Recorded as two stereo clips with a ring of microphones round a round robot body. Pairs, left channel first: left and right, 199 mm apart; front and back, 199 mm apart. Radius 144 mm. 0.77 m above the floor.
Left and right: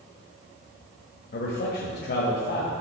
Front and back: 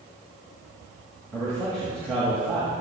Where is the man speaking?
85° left, 1.5 m.